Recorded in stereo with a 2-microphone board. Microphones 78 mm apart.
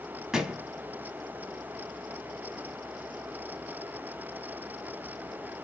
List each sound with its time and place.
0.3 s a thud: 5° right (ahead or behind), 0.6 m